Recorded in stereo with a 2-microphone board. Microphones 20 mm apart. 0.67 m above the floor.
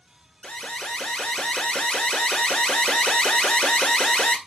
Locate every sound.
0.4 s an alarm: 70° left (ahead or behind), 2 m